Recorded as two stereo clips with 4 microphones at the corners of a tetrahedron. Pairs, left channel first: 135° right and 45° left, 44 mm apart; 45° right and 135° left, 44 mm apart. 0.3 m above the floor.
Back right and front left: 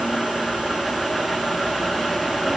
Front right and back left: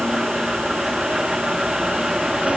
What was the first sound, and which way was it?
Only background noise.